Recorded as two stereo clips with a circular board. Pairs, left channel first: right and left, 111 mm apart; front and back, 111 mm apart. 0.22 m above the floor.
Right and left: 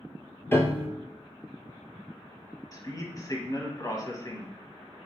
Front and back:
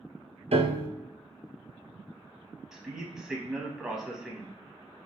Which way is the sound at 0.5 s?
160° right.